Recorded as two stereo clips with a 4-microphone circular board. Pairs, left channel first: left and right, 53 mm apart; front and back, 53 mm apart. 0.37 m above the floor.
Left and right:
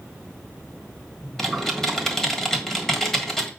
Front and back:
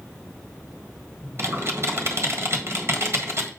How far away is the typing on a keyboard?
About 1.6 m.